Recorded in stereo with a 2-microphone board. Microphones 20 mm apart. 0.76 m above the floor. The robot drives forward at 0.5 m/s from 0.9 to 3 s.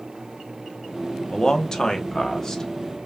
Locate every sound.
1.3 s a man speaking: 35° left (ahead or behind), 0.8 m; by 3.0 s 20° left (ahead or behind), 1.4 m